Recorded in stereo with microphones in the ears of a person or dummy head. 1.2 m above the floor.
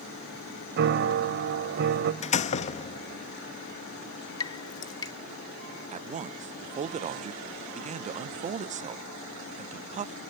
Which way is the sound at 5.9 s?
35° right (ahead or behind).